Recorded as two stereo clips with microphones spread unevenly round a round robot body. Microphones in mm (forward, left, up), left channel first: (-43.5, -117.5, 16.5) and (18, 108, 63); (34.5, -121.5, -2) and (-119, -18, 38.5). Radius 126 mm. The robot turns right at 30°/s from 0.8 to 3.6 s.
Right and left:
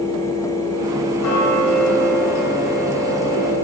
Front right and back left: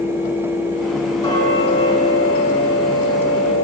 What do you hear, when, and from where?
1.2 s ticking: 105° right, 8.5 m; by 3.6 s 35° right, 8.5 m